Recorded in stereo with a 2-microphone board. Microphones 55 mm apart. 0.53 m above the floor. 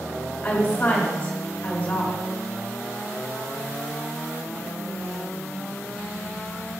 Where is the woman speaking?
40° left (ahead or behind), 1.8 m.